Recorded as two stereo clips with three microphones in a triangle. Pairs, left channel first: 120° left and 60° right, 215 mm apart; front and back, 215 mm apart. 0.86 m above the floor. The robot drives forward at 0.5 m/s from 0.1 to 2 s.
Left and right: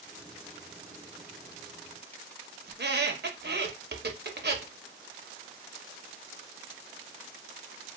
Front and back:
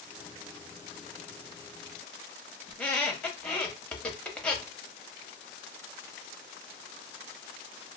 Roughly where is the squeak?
Right.